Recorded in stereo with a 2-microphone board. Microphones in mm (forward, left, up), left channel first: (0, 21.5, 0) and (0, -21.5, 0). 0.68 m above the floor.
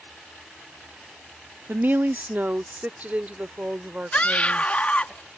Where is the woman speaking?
50° right (ahead or behind); by 5.1 s 30° right (ahead or behind).